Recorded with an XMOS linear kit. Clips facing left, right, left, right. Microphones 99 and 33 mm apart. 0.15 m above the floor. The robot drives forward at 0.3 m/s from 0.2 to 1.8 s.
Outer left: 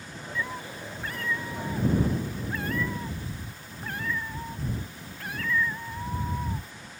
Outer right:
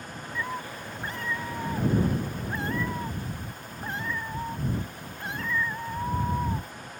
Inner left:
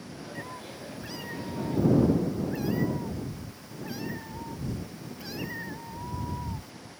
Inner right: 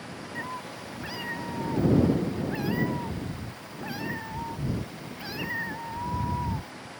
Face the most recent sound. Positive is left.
turn(degrees=-25)  # may be behind; listen again after turning